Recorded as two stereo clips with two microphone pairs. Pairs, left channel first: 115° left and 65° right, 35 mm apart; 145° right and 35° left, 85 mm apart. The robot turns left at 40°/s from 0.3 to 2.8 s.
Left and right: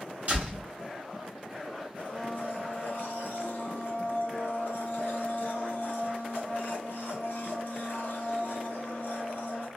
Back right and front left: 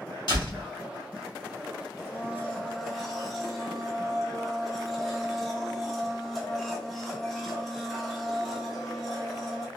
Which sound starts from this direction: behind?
A blender, at 2.0 s.